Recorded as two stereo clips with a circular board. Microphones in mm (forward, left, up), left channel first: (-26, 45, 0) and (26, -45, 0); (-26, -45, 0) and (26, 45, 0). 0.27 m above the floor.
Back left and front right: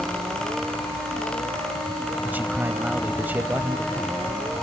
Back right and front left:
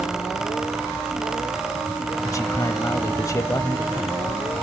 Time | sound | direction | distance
2.2 | a man speaking | 120° right | 1.0 m